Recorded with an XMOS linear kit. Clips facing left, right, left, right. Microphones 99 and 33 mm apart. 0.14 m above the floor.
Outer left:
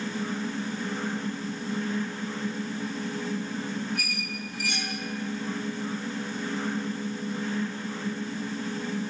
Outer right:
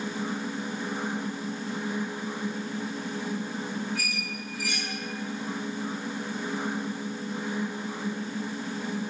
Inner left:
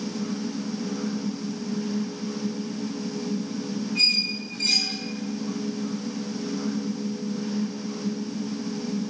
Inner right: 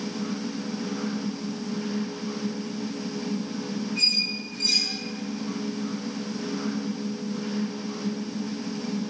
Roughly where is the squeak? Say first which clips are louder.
Even, inner left 2 dB; left.